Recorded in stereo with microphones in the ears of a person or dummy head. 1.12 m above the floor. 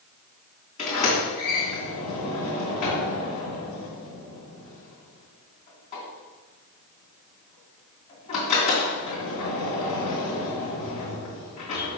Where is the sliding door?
35° left (ahead or behind), 2.5 m.